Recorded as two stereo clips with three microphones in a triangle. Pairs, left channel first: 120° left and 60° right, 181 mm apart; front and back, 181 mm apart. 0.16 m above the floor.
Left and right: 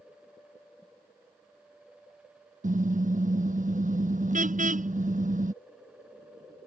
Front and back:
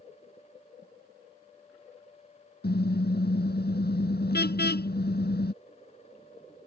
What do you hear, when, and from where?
2.6 s a car horn: 20° right